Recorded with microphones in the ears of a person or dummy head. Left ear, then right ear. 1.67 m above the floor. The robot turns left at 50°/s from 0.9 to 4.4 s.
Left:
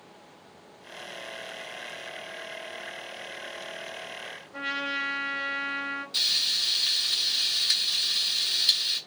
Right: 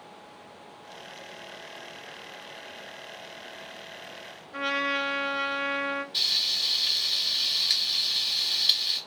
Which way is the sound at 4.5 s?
45° right (ahead or behind).